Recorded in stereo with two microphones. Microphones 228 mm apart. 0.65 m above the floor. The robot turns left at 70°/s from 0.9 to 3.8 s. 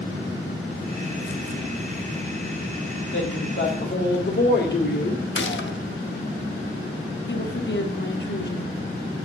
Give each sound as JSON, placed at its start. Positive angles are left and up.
{"t": 3.1, "sound": "a woman speaking", "azimuth_deg": 105, "distance_m": 2.0}
{"t": 5.3, "sound": "a gunshot", "side_deg": 55, "distance_m": 0.8}
{"t": 7.3, "sound": "a woman speaking", "side_deg": 50, "distance_m": 1.1}